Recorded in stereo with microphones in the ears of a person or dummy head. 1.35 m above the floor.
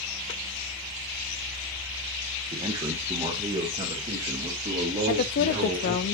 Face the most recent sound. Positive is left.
turn(degrees=50)  # may be behind; listen again after turning